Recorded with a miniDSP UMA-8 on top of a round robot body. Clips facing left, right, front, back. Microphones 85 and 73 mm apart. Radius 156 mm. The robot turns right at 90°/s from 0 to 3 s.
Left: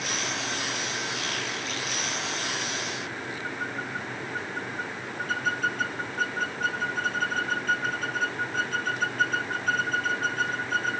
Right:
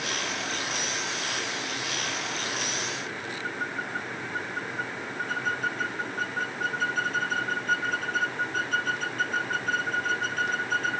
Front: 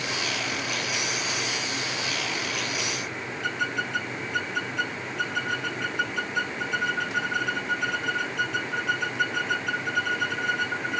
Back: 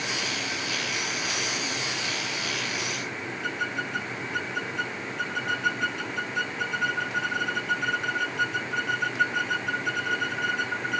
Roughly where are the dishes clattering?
I don't hear dishes clattering.